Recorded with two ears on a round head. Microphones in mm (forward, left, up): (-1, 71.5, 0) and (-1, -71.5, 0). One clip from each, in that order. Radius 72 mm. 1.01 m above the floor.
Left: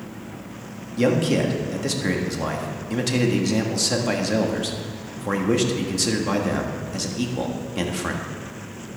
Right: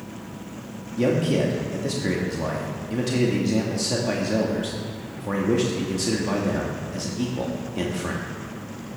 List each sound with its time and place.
1.0 s a man speaking: 35° left (ahead or behind), 1.6 m